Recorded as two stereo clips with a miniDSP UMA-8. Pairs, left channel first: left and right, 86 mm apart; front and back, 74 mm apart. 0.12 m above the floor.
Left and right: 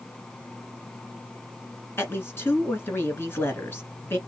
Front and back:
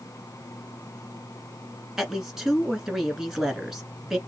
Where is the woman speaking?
100° left, 1.4 m.